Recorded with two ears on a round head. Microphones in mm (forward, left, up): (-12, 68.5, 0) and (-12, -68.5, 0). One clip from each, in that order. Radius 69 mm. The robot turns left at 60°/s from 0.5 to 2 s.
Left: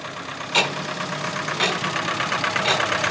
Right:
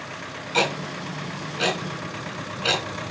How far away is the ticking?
About 2.5 m.